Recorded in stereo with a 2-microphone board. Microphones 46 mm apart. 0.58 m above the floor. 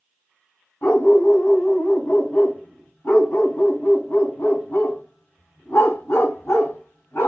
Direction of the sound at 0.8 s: 65° left (ahead or behind).